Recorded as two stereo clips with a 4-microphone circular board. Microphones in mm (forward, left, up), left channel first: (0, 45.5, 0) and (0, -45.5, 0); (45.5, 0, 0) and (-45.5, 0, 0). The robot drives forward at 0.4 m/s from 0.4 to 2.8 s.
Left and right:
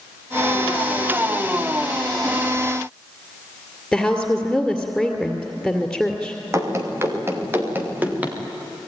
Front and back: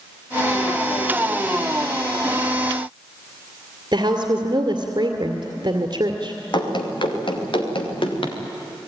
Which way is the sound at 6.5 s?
35° right.